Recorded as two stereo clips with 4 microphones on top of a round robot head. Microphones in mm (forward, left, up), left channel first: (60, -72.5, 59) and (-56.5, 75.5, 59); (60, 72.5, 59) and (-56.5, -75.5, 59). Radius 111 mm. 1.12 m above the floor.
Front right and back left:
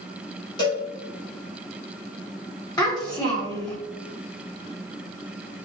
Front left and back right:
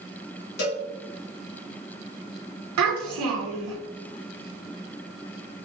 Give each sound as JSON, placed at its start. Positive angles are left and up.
{"t": 0.6, "sound": "a cowbell", "azimuth_deg": 15, "distance_m": 1.4}
{"t": 2.8, "sound": "a child speaking", "azimuth_deg": -125, "distance_m": 0.9}